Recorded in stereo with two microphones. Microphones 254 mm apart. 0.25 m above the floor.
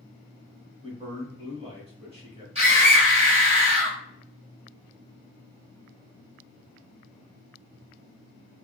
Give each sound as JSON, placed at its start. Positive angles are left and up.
{"t": 0.8, "sound": "a man speaking", "side_deg": -25, "distance_m": 1.1}
{"t": 2.5, "sound": "a scream", "side_deg": -25, "distance_m": 1.7}